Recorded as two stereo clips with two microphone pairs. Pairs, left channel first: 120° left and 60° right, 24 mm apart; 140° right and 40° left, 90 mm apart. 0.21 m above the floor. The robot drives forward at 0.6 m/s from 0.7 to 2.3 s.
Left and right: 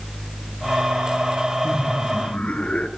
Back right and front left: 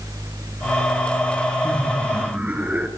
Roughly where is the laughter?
Left.